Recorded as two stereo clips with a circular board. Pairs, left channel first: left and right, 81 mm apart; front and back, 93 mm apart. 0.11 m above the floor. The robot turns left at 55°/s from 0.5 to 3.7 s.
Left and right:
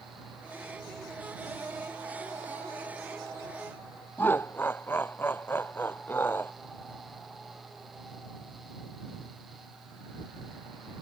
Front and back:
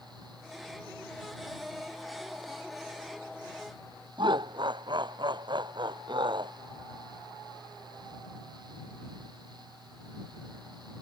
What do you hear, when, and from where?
4.2 s laughter: 150° left